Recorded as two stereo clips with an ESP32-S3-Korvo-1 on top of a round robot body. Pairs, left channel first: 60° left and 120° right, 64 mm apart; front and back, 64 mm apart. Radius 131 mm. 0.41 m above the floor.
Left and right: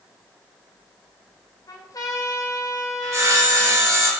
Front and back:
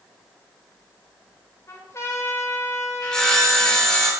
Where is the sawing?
80° right, 3.5 m.